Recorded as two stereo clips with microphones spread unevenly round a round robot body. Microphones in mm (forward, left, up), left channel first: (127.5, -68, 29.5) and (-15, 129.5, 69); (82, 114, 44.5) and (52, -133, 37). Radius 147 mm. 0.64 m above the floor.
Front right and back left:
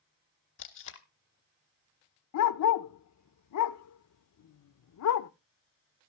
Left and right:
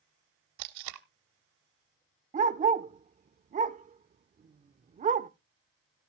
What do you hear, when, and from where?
0.6 s tape being pulled: 105° right, 0.6 m
2.3 s a dog barking: 35° right, 0.6 m